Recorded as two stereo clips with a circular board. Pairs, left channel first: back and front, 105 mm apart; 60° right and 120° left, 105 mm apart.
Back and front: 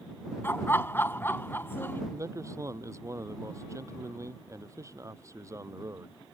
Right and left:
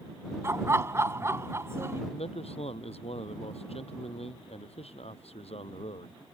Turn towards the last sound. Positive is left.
turn(degrees=-60)